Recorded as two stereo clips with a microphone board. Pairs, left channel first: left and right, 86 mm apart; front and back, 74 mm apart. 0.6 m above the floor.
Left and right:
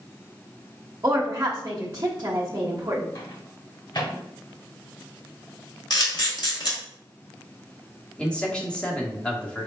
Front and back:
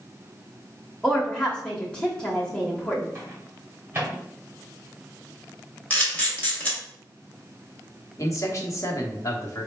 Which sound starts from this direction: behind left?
A microwave, at 3.1 s.